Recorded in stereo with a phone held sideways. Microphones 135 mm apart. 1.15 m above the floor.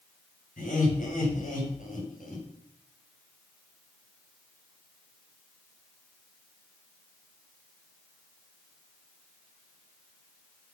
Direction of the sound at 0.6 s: 80° left.